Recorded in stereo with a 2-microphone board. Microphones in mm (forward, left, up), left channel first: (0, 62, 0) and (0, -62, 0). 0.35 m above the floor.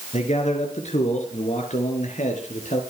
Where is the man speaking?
65° left (ahead or behind), 4.5 m; by 2.8 s 80° left, 5.5 m.